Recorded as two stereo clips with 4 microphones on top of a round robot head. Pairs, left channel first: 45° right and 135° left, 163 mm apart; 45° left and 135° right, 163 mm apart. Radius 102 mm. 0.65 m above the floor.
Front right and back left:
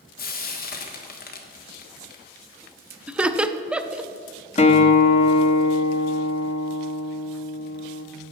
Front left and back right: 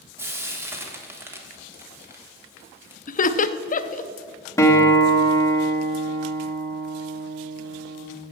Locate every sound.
0.2 s frying: 60° right, 1.5 m
3.1 s laughter: 55° left, 0.7 m
4.6 s a guitar: 20° right, 1.3 m